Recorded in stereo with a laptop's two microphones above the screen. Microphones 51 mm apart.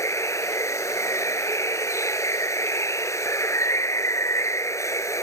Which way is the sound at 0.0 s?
75° left (ahead or behind).